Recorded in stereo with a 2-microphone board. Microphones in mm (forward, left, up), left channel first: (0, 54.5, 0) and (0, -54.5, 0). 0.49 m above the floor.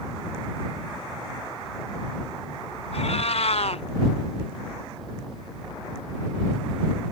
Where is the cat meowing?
65° left (ahead or behind).